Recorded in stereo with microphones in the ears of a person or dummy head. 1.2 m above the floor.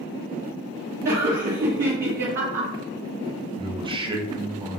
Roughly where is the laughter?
Right.